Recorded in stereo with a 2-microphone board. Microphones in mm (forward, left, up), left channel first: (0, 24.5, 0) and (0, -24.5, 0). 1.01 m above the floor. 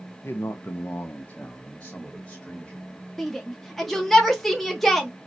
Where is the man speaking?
50° left (ahead or behind), 0.5 m; by 3.0 s 5° left (ahead or behind), 1.5 m.